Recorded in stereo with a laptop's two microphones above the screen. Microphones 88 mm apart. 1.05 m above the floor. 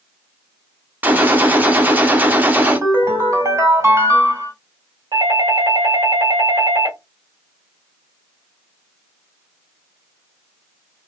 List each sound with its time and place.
1.0 s a gunshot: 20° right (ahead or behind), 0.8 m
2.5 s a ringtone: 35° right (ahead or behind), 2 m
5.1 s a doorbell: 55° right (ahead or behind), 1.5 m